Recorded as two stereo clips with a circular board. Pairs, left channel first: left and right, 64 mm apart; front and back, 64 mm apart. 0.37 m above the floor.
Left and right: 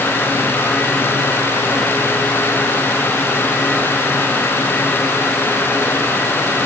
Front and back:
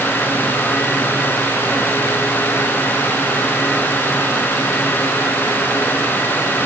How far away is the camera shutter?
No camera shutter in this recording.